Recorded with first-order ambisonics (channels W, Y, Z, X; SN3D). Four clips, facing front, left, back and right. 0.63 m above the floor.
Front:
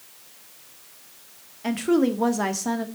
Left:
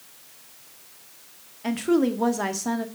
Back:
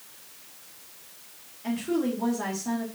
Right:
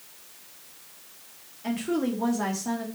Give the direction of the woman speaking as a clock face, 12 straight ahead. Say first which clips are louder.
Left 5 dB, front 6 dB; 11 o'clock.